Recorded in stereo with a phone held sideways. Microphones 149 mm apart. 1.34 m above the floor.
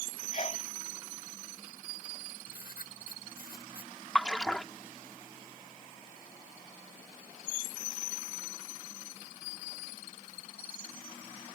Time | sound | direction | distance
0.3 | a sneeze | 55° left (ahead or behind) | ?
2.5 | writing | 85° left | ?
4.2 | a splash | 5° left (ahead or behind) | ?